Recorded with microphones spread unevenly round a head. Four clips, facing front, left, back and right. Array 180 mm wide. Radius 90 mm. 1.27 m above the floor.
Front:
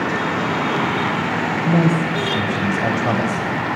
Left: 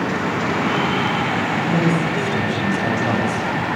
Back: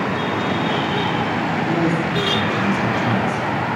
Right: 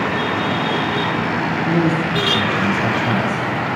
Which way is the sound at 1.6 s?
10° left.